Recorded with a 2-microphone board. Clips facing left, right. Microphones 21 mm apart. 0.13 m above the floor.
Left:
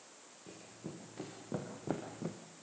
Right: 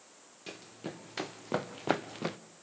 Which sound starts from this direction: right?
Running footsteps, at 0.5 s.